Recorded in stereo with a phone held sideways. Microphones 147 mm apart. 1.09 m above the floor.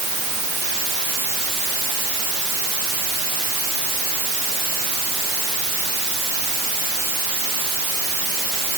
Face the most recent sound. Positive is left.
No sound to turn to.